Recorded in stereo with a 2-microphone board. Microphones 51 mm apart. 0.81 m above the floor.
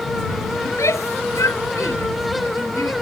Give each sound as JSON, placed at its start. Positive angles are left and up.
{"t": 0.7, "sound": "a shout", "side_deg": 75}